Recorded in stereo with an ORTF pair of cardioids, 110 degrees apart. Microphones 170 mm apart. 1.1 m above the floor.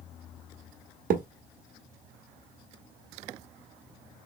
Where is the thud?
60° right, 1.0 m.